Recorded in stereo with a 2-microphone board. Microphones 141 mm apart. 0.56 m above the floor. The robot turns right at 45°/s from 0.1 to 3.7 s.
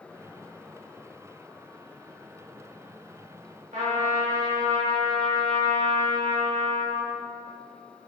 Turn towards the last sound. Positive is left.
turn(degrees=-60)  # may be behind; listen again after turning